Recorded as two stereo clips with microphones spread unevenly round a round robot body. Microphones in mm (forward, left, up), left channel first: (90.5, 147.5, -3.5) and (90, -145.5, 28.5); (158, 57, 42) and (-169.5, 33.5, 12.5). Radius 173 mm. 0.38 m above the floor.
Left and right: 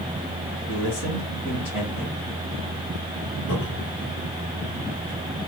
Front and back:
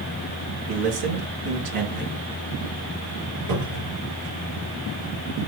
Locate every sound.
0.7 s a man speaking: 175° right, 4.5 m
3.5 s a cupboard door: 155° left, 7 m